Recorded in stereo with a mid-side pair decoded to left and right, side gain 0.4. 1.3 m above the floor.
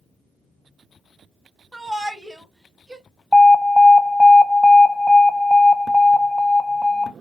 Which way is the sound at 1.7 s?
10° right.